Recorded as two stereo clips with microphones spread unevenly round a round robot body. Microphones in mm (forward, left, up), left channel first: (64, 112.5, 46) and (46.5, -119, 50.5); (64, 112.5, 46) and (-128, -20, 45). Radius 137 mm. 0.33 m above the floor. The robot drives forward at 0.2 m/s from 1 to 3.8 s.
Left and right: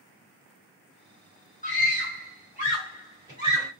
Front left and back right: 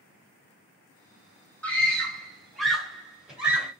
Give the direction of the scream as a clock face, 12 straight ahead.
8 o'clock.